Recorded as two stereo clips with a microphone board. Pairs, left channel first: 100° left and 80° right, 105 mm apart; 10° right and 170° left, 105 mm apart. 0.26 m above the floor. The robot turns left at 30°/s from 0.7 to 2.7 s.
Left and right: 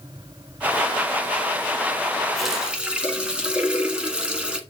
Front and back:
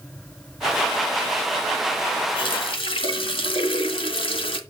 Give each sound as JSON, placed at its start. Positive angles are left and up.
{"t": 2.4, "sound": "a running tap", "azimuth_deg": 10, "distance_m": 1.6}